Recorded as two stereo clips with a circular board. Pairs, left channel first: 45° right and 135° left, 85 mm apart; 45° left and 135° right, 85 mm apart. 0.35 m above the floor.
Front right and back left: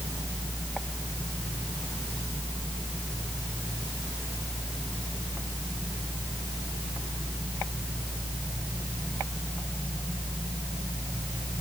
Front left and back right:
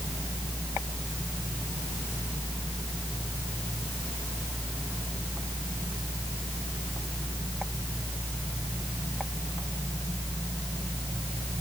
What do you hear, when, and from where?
Only background noise.